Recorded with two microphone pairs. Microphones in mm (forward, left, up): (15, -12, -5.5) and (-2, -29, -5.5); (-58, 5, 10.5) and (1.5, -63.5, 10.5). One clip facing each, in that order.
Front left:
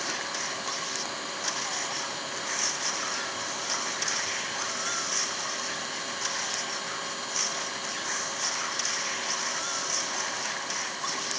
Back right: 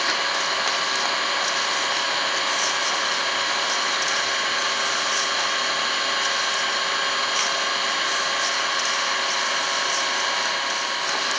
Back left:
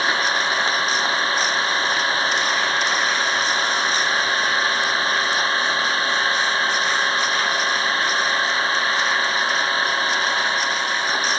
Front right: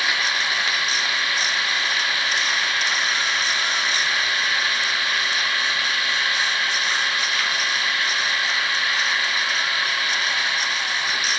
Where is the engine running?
175° right.